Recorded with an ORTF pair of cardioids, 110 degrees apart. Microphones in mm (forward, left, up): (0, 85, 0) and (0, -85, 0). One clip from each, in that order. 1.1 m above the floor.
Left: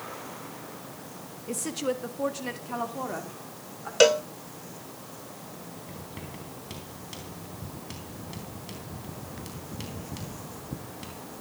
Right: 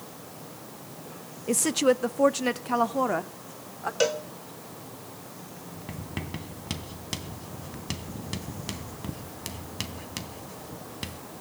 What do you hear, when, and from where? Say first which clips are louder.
1.5 s a woman speaking: right 8 dB; 40° right, 1.1 m; by 3.9 s 45° right, 3 m
4.0 s a cowbell: left 7 dB; 35° left, 1.3 m
5.9 s writing: right 8 dB; 55° right, 3.5 m